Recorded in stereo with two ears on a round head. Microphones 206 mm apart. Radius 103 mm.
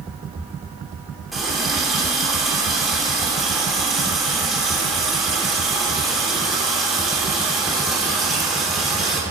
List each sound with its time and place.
1.3 s a running tap: centre (ahead or behind), 3 m